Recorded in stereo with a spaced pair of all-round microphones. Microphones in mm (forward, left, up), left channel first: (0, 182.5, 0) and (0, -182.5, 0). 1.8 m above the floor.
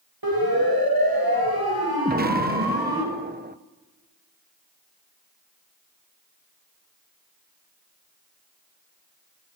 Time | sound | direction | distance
0.2 | a siren | 75° right (ahead or behind) | 9 m
2.0 | an explosion | 25° right (ahead or behind) | 0.8 m